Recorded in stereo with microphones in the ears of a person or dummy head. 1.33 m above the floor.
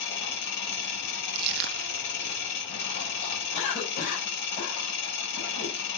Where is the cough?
45° left (ahead or behind), 6.5 m.